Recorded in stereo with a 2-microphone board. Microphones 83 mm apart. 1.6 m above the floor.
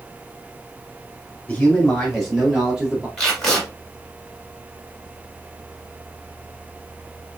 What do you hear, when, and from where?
1.5 s a man speaking: 15° left (ahead or behind), 3 m; by 3.1 s 15° right (ahead or behind), 3 m
3.2 s tape being pulled: 5° left (ahead or behind), 2.5 m